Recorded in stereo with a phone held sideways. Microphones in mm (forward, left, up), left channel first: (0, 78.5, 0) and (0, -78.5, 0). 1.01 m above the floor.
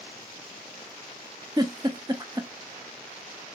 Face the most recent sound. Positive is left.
turn(degrees=-25)  # may be behind; listen again after turning